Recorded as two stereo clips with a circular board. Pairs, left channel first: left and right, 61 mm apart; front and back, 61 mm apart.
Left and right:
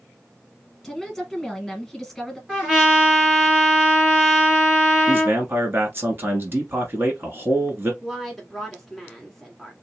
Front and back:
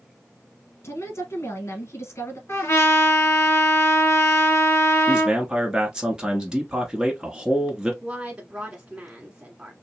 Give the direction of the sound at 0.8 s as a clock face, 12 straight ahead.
12 o'clock.